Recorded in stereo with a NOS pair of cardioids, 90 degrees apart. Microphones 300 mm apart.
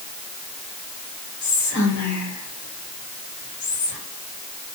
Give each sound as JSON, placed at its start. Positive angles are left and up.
{"t": 1.4, "sound": "whispering", "azimuth_deg": 65, "distance_m": 1.5}